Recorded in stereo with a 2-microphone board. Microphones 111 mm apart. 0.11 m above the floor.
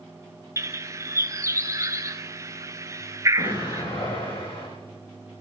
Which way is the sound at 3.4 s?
60° left (ahead or behind).